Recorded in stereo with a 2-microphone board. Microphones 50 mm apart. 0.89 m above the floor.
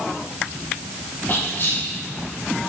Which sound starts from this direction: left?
Whispering, at 1.3 s.